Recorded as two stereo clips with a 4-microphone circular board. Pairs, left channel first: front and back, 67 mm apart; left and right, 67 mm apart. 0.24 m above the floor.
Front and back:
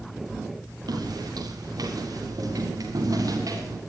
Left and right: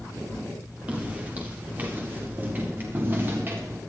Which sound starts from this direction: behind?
Footsteps, at 0.9 s.